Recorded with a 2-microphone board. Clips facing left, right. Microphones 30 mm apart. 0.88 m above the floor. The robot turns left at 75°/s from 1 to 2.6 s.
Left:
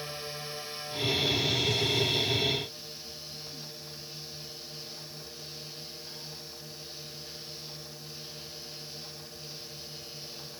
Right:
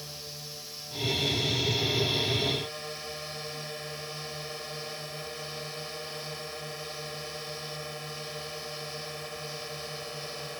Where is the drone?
45° left; by 10.6 s 75° right.